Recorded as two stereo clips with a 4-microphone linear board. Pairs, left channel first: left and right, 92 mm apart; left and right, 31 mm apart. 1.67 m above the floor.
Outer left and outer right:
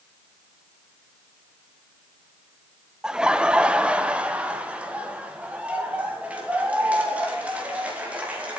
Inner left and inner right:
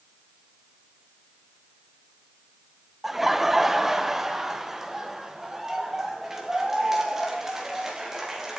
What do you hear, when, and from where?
3.0 s laughter: 5° right (ahead or behind), 0.6 m; by 8.6 s 15° right (ahead or behind), 4 m